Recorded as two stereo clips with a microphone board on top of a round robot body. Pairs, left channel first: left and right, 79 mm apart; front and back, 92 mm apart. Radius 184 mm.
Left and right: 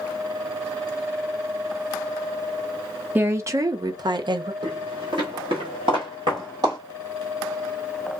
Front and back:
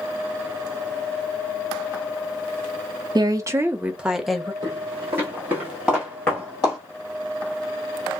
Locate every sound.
3.1 s a woman speaking: 150° right, 0.7 m; by 4.5 s 85° right, 1.0 m
4.6 s footsteps: 135° right, 1.4 m; by 6.8 s 55° right, 1.3 m